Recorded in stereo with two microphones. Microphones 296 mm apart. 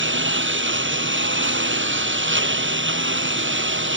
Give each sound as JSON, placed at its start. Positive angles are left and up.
{"t": 0.0, "sound": "a lawn mower", "side_deg": -45}